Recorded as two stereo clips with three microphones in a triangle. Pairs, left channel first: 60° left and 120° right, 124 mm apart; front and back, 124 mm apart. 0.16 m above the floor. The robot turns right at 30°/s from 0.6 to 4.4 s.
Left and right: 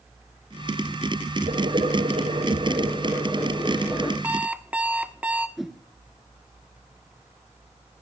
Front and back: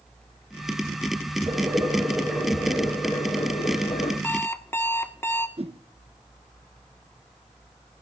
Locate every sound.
1.5 s boiling: 120° right, 10 m; by 4.1 s 40° right, 10 m
4.2 s an alarm clock: 55° right, 0.9 m
5.6 s a whoosh: 150° left, 0.8 m